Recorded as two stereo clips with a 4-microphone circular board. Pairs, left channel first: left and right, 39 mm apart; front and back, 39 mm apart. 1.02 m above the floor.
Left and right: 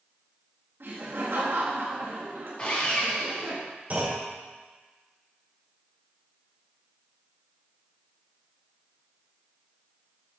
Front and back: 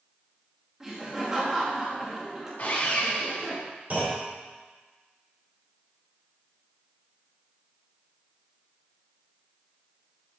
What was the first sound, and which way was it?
Laughter, 105° right.